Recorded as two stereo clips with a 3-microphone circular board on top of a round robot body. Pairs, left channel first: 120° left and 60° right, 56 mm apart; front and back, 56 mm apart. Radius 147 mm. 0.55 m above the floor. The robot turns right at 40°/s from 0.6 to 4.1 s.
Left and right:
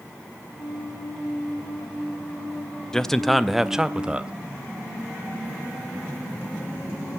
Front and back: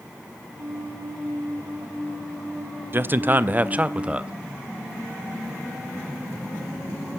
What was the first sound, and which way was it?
A man speaking, 170° right.